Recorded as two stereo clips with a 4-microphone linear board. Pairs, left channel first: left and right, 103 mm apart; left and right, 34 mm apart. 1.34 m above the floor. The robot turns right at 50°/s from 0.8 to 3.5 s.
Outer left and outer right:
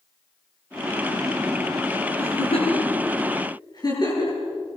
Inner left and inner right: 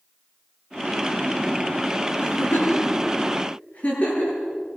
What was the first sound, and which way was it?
A giggle, 70° left (ahead or behind).